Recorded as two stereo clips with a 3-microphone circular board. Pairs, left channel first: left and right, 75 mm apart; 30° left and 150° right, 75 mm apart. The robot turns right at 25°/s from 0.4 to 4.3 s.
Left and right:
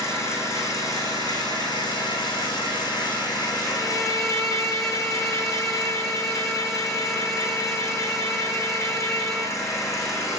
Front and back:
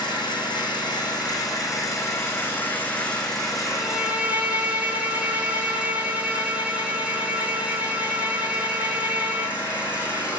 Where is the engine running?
40° left, 4.5 m; by 10.4 s 135° left, 4.5 m.